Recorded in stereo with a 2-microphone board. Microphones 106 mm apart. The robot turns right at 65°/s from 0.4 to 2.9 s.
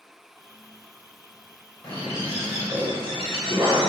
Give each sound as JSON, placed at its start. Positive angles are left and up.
{"t": 1.8, "sound": "a bird", "azimuth_deg": 135, "distance_m": 4.0}